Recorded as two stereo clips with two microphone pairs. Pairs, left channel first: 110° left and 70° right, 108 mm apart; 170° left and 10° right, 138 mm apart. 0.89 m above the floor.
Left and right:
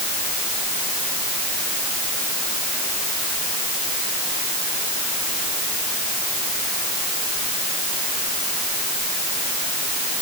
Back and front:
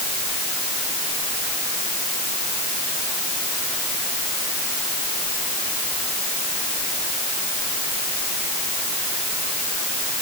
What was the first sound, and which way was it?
Only background noise.